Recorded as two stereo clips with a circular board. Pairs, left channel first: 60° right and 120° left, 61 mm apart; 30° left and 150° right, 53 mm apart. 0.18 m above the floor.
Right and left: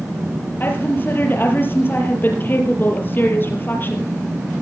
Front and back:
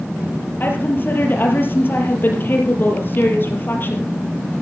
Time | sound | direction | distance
0.6 | a woman speaking | 10° right | 5 m